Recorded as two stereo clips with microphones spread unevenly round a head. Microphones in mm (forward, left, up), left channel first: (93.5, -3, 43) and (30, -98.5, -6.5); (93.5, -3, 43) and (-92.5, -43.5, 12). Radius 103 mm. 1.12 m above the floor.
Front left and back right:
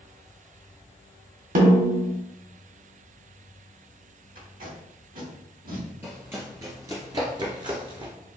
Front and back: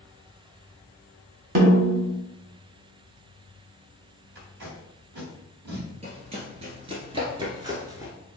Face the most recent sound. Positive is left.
turn(degrees=-95)